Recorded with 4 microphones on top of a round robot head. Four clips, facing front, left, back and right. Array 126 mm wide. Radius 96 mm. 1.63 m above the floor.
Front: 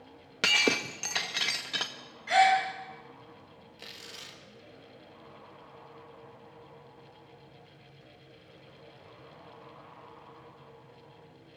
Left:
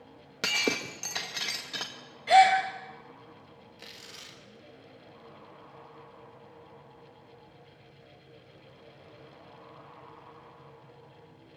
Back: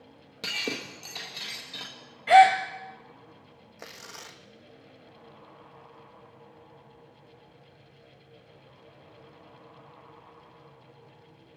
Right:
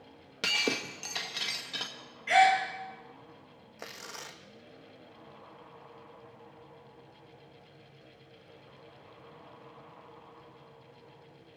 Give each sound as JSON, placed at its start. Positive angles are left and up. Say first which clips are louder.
{"t": 0.4, "sound": "breaking glass", "louder": "left 2 dB, front 6 dB", "azimuth_deg": 20, "distance_m": 1.0}
{"t": 2.3, "sound": "a gasp", "louder": "left 4 dB, back 7 dB", "azimuth_deg": 155, "distance_m": 2.5}
{"t": 3.8, "sound": "tearing paper", "louder": "right 10 dB, back 5 dB", "azimuth_deg": -130, "distance_m": 1.2}